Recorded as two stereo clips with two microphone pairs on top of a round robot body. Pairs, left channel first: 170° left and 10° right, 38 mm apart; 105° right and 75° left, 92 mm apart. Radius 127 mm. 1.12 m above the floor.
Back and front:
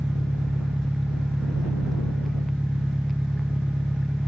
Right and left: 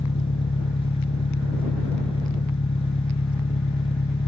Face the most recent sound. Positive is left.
turn(degrees=-100)